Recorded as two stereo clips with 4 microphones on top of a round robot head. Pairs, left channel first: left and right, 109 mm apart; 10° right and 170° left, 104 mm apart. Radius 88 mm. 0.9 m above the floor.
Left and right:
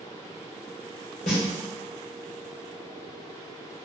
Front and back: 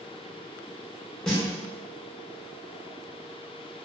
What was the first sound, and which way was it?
A snare drum, 75° left.